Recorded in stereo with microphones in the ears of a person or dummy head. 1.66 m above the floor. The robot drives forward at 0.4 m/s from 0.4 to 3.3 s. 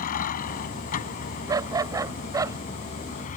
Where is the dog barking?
15° right (ahead or behind).